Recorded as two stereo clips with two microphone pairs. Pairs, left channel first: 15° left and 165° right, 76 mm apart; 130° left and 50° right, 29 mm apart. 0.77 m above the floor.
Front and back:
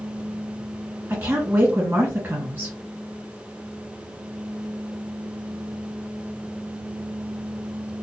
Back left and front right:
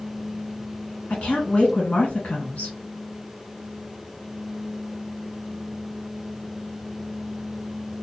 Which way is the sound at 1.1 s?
135° left.